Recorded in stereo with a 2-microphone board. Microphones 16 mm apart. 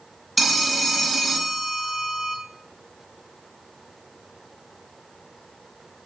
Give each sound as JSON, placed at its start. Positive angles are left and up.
{"t": 0.4, "sound": "a phone ringing", "side_deg": -5, "distance_m": 0.7}